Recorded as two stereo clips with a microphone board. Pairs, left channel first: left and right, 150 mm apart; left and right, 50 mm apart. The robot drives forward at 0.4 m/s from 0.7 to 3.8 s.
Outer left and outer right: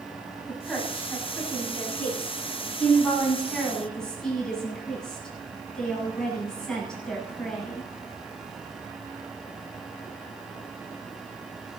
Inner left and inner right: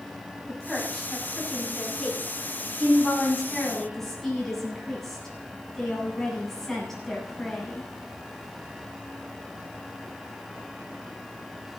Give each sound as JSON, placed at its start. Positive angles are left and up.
{"t": 0.5, "sound": "a woman speaking", "side_deg": 5, "distance_m": 7.5}